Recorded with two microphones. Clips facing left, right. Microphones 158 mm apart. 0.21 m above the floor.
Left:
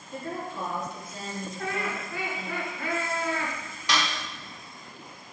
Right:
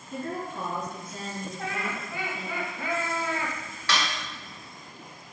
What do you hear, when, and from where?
0.1 s a woman speaking: 50° right (ahead or behind), 2.0 m
1.6 s laughter: 20° right (ahead or behind), 1.7 m
3.9 s a snare drum: 15° left (ahead or behind), 1.5 m